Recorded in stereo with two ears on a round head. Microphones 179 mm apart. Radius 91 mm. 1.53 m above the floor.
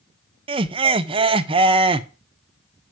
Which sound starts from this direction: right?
Laughter, at 0.5 s.